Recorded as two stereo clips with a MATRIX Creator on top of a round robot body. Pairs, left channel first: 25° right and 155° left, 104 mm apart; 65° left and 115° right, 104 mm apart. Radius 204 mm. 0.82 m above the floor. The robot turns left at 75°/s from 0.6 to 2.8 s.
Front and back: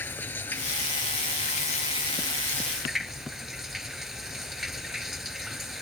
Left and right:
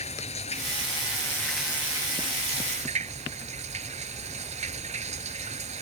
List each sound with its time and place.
0.0 s running water: 50° left; by 5.8 s 115° right